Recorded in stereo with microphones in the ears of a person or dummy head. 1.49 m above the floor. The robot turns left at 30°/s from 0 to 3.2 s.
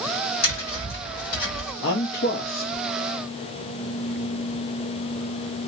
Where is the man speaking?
70° left, 0.6 m; by 2.8 s 40° left, 0.6 m.